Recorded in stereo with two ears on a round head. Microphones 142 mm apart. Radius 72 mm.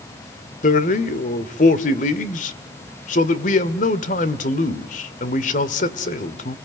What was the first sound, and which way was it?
A man speaking, 50° left (ahead or behind).